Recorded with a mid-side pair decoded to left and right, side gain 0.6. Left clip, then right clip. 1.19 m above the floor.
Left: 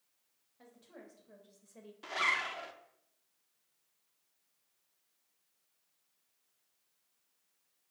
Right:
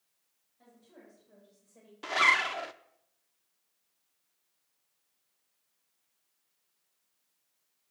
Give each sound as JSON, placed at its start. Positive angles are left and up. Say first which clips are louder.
{"t": 0.6, "sound": "a woman speaking", "louder": "left 2 dB", "azimuth_deg": 45, "distance_m": 3.0}
{"t": 2.0, "sound": "a zipper", "louder": "right 8 dB", "azimuth_deg": -35, "distance_m": 0.5}